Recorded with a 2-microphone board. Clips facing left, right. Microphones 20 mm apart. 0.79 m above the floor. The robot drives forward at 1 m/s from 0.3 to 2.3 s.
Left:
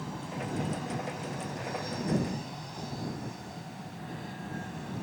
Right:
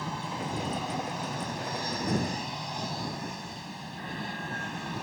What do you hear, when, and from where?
0.0 s an aircraft: 35° right (ahead or behind); by 5.0 s 40° right (ahead or behind)